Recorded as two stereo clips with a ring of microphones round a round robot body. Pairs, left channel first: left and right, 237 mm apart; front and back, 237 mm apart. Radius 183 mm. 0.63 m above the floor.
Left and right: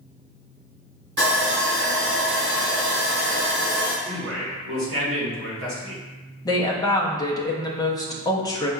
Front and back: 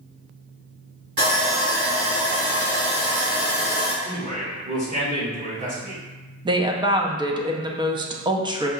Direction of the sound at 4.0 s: 120° right.